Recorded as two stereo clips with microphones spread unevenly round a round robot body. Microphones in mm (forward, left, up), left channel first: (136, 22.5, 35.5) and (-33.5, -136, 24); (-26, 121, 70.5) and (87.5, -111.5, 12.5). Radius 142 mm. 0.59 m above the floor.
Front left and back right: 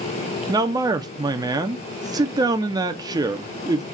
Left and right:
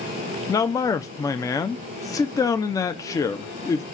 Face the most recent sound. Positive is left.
turn(degrees=-155)